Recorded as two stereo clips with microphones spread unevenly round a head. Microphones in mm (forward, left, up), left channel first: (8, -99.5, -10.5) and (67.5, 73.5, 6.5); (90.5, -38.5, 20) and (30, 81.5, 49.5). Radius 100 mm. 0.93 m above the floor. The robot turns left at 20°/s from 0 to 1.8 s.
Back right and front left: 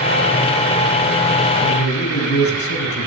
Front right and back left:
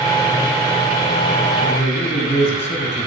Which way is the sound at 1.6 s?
115° right.